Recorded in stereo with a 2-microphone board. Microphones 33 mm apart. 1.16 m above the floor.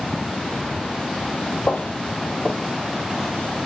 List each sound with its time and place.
1.7 s footsteps: 55° left (ahead or behind), 2.5 m; by 3.3 s 10° right (ahead or behind), 2 m